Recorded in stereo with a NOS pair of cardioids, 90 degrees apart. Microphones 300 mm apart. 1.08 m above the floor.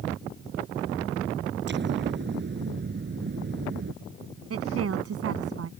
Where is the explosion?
35° right.